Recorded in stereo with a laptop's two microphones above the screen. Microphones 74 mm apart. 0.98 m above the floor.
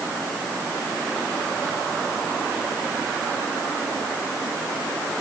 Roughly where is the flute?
I don't hear a flute.